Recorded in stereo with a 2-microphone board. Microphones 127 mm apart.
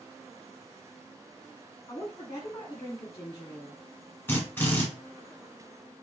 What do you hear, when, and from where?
1.9 s a woman speaking: 25° left (ahead or behind), 1.2 m
4.3 s a drill: 15° left (ahead or behind), 1.3 m